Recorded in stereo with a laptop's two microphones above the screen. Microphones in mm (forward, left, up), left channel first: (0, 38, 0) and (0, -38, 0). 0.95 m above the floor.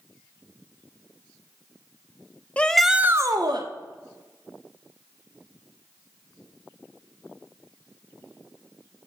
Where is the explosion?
I don't hear an explosion.